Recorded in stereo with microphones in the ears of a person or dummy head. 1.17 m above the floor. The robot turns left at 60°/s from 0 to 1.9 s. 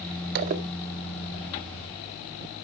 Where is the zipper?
55° right (ahead or behind), 0.8 m; by 0.6 s 40° right (ahead or behind), 0.8 m.